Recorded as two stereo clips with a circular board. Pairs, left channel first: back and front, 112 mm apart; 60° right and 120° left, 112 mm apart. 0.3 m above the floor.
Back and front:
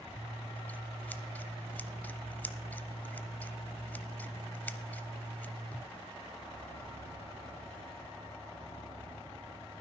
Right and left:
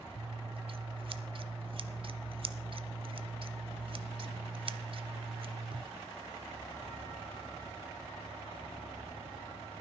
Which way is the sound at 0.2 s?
110° left.